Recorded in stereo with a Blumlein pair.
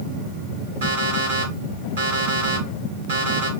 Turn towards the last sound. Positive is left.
turn(degrees=-65)